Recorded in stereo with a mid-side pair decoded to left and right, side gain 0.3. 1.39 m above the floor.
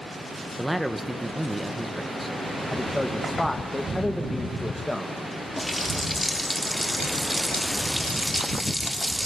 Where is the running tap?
10° left, 2.5 m.